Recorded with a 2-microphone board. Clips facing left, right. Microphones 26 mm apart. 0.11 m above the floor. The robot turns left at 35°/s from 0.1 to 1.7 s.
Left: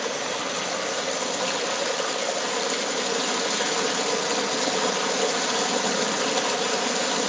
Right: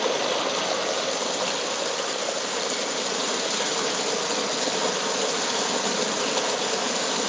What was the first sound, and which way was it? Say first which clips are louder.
Running water: right 4 dB; 125° right.